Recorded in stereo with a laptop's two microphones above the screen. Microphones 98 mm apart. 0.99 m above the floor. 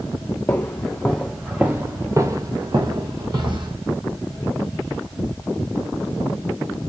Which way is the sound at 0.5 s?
20° left (ahead or behind).